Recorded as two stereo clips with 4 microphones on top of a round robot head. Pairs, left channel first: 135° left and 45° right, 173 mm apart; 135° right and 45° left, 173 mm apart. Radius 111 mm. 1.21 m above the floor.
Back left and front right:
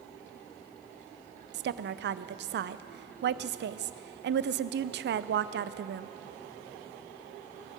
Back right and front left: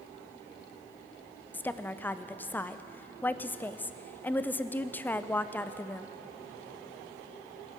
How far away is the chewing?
No chewing in this recording.